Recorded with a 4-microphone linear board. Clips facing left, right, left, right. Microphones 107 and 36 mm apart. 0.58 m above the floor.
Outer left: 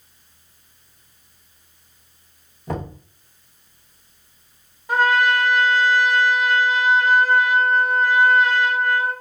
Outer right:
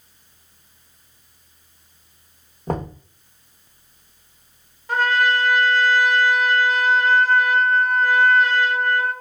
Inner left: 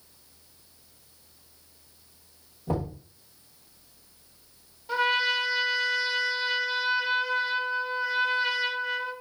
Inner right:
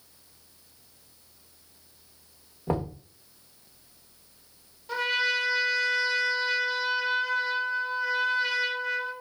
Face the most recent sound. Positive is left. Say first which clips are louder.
# outer left 2 dB, inner left 2 dB
turn(degrees=10)  # may be behind; listen again after turning